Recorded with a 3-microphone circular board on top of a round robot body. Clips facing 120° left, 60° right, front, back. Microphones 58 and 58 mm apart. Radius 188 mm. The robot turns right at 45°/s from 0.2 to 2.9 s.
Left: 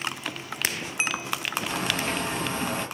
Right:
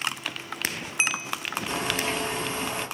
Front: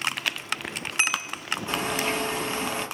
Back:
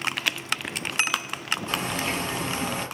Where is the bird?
35° left, 1.1 m; by 2.9 s 90° left, 1.1 m.